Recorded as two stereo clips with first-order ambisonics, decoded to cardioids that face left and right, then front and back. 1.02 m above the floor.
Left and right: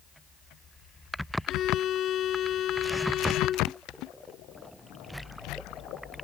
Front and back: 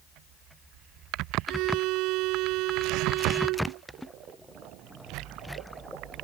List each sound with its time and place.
1.5 s a violin: 150° left